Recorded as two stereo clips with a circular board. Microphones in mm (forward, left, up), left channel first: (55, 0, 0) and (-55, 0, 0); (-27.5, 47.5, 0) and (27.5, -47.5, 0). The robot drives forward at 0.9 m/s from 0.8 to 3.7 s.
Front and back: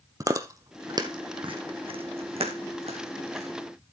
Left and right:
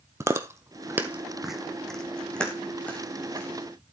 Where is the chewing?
125° right, 0.9 m; by 3.5 s 165° right, 3 m.